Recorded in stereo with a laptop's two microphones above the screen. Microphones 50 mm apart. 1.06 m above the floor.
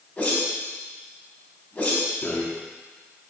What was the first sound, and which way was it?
A whoosh, 25° left (ahead or behind).